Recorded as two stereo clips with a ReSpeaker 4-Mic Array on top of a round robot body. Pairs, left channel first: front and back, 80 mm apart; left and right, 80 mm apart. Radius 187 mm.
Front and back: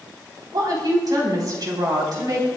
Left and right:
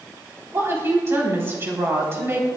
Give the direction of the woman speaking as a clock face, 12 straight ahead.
5 o'clock.